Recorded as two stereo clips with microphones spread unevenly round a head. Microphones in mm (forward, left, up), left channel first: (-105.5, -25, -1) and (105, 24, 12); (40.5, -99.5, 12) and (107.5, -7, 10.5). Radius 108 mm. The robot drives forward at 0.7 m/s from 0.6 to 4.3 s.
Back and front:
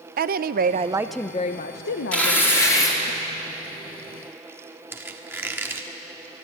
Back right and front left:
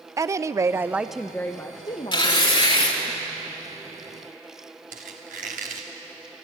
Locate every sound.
0.2 s a woman speaking: 10° left, 0.6 m; by 3.1 s straight behind, 1.5 m
2.1 s tearing paper: 80° right, 3 m; by 3.0 s 95° right, 3 m
4.9 s a squeak: 95° left, 1.2 m